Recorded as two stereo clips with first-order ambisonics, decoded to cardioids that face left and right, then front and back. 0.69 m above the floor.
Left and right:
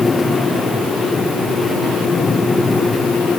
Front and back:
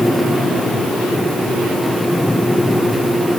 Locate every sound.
Only background noise.